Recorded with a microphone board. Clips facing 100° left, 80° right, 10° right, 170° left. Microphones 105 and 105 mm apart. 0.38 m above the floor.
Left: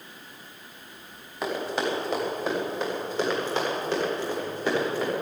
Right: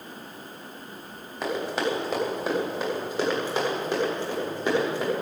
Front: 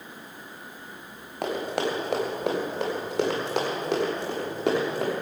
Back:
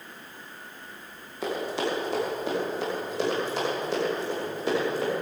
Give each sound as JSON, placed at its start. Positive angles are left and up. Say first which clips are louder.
{"t": 1.4, "sound": "running footsteps", "louder": "right 1 dB, front 1 dB", "azimuth_deg": 10, "distance_m": 7.0}